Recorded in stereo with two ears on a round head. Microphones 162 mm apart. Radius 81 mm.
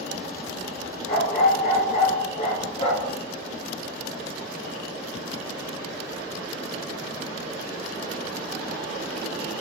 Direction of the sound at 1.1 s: 55° left (ahead or behind).